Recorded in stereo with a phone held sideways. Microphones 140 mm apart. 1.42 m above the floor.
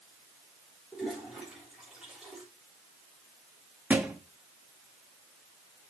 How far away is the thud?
About 0.9 m.